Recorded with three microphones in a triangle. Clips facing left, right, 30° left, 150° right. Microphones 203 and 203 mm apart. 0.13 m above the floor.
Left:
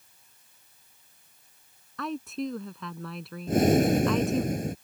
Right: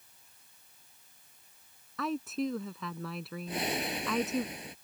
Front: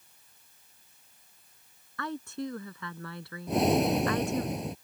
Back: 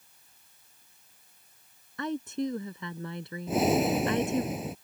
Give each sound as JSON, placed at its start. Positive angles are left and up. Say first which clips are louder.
{"t": 2.0, "sound": "a woman speaking", "louder": "even, back 5 dB", "azimuth_deg": -175}
{"t": 3.5, "sound": "breathing", "louder": "left 15 dB, even", "azimuth_deg": 125}